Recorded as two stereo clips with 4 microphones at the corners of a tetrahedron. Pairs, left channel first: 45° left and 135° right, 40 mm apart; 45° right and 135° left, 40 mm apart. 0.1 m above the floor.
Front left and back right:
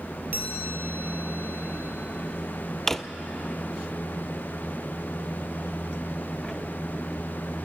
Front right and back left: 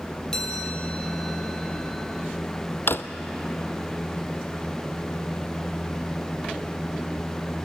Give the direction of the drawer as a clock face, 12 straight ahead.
1 o'clock.